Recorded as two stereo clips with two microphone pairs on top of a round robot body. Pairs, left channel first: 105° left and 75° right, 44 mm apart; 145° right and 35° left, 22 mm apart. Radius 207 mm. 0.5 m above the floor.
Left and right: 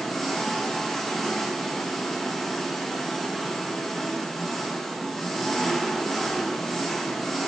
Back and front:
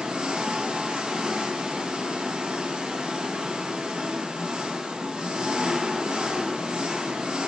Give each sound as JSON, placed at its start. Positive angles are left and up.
{"t": 0.0, "sound": "an engine running", "azimuth_deg": 20, "distance_m": 0.8}